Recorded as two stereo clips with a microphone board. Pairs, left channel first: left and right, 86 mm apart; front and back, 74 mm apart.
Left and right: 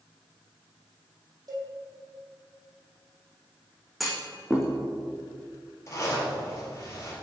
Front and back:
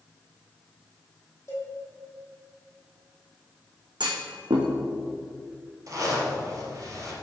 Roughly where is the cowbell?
Ahead right.